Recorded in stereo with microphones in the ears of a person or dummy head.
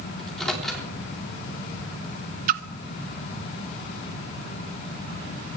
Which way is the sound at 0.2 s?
5° left (ahead or behind).